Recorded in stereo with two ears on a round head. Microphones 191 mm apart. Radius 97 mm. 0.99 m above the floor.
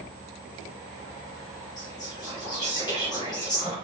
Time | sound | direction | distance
1.8 | whispering | 20° left (ahead or behind) | 0.7 m